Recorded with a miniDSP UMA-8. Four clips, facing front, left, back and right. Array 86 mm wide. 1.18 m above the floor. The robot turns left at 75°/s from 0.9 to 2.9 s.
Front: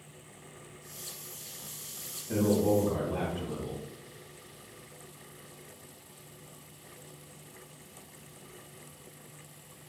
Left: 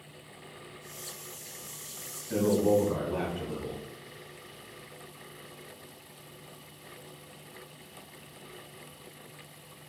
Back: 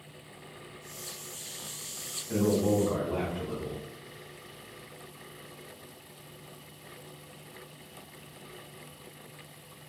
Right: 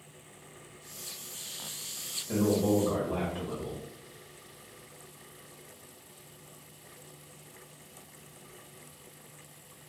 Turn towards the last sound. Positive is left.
turn(degrees=-120)